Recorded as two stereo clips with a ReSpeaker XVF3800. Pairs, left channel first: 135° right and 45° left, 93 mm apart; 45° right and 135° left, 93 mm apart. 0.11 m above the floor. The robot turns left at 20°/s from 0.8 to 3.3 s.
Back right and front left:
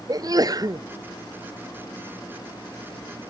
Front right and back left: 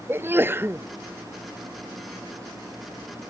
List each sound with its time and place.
0.1 s a sneeze: 75° left